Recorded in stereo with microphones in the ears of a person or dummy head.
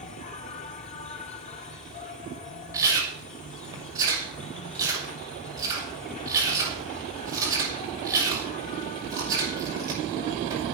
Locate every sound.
0.0 s an insect: 35° left (ahead or behind), 1.4 m
2.7 s chewing: 20° right (ahead or behind), 6.5 m